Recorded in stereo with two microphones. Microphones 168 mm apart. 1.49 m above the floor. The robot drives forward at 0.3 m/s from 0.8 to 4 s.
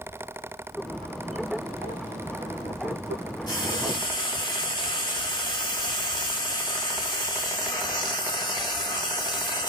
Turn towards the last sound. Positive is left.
turn(degrees=25)  # may be behind; listen again after turning